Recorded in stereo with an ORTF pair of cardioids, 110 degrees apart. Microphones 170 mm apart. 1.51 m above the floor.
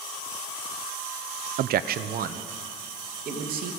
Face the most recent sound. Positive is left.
turn(degrees=-60)